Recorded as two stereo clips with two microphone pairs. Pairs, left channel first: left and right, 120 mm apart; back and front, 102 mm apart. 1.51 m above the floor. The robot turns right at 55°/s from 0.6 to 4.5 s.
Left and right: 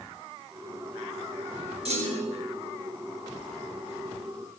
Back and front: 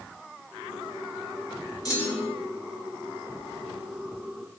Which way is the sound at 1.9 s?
125° right.